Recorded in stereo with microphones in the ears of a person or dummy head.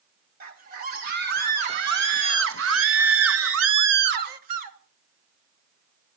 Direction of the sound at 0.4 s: 50° right (ahead or behind).